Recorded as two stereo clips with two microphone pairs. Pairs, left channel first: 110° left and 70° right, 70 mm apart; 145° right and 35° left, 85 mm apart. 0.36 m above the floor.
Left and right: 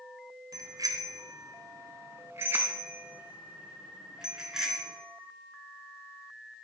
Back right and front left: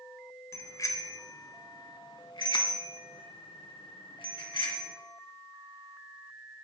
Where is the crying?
No crying in this recording.